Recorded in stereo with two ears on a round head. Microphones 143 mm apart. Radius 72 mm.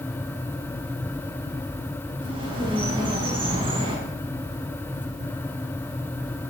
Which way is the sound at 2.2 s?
35° right (ahead or behind).